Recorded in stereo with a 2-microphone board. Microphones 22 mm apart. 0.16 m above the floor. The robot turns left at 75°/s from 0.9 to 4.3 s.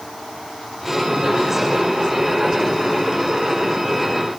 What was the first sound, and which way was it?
Only background noise.